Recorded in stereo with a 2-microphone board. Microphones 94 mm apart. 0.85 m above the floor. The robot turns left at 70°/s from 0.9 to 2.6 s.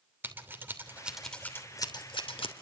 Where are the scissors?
20° right (ahead or behind), 3 m; by 2.5 s 80° left, 3 m.